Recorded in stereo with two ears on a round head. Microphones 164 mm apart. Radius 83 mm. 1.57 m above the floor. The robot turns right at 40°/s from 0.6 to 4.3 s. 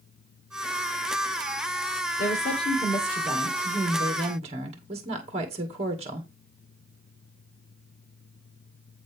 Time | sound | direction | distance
2.2 | a woman speaking | 130° left | 2.5 m